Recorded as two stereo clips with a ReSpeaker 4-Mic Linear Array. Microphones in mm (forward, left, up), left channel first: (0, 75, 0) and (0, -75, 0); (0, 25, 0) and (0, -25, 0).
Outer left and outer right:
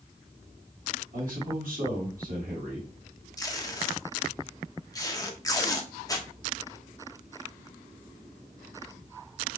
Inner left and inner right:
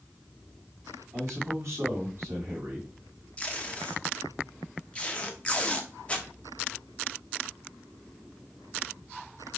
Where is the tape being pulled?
25° left (ahead or behind), 0.7 m.